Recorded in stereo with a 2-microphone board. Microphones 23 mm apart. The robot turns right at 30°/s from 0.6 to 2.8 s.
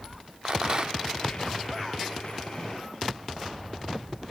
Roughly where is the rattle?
Right.